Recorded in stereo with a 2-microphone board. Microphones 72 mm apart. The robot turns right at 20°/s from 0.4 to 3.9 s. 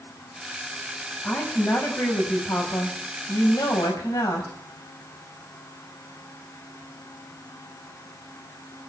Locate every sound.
1.2 s a woman speaking: 20° left, 5 m; by 4.5 s 75° left, 5 m